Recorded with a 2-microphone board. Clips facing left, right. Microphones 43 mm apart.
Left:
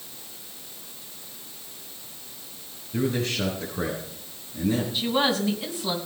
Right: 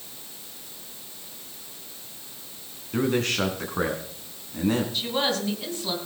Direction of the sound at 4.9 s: 10° left (ahead or behind).